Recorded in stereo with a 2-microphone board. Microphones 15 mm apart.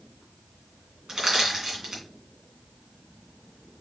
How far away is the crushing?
About 2.5 m.